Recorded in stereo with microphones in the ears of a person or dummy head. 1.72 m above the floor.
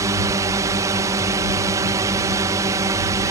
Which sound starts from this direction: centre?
A drone, at 0.0 s.